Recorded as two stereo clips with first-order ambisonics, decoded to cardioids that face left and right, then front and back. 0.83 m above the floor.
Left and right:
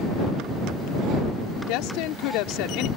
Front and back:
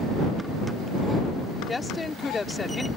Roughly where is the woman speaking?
Left.